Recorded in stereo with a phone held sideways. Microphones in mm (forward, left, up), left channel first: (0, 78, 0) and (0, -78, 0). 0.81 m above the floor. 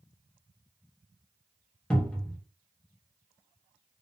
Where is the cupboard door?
5° left (ahead or behind), 0.8 m.